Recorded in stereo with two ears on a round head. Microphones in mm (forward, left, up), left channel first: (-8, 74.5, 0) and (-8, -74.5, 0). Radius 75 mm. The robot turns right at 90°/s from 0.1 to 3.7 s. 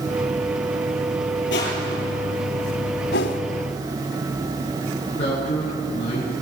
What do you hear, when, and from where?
1.5 s crushing: 85° left, 7.5 m; by 2.2 s 20° left (ahead or behind), 7.5 m
3.1 s a whoosh: 65° left (ahead or behind), 1.9 m; by 3.4 s 80° left, 1.9 m
5.2 s a man speaking: 35° left (ahead or behind), 9.5 m